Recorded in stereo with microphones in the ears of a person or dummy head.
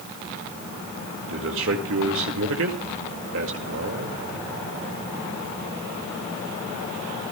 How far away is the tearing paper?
No tearing paper in this recording.